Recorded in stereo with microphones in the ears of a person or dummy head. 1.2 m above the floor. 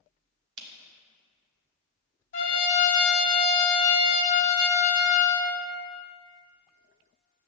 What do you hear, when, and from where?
0.6 s a camera shutter: 70° right (ahead or behind), 1.0 m
2.3 s a trumpet: 50° left (ahead or behind), 1.3 m